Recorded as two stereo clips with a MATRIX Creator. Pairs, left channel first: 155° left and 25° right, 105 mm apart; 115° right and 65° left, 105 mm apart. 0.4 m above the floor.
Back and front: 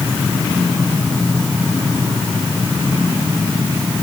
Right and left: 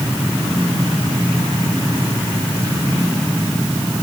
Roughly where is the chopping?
No chopping in this recording.